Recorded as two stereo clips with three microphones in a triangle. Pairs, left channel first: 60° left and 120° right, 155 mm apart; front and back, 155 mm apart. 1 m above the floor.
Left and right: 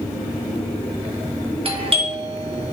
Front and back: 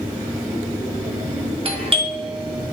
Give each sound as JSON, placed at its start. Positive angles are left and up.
{"t": 1.6, "sound": "a doorbell", "azimuth_deg": -150, "distance_m": 1.1}